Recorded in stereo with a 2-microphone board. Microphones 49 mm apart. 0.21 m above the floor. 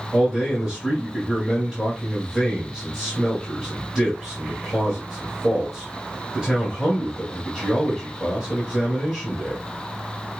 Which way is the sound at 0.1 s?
10° left (ahead or behind).